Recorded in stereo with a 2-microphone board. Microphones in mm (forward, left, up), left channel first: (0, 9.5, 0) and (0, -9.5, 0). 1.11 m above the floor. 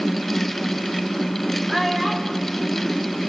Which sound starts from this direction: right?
A child speaking, at 1.7 s.